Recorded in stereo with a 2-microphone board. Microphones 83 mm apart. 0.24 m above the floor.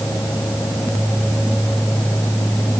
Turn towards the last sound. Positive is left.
No sound to turn to.